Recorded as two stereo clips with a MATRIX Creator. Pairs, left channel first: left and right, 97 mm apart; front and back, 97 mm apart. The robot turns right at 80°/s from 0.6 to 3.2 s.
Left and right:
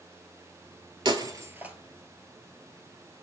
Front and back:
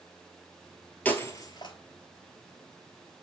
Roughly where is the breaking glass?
Right.